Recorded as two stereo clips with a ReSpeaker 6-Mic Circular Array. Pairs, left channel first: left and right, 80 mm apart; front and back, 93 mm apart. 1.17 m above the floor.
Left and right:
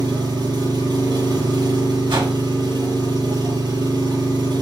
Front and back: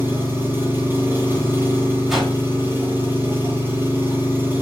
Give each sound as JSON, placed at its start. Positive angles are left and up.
{"t": 0.0, "sound": "an engine running", "azimuth_deg": -110, "distance_m": 5.0}
{"t": 2.1, "sound": "a whoosh", "azimuth_deg": -90, "distance_m": 3.0}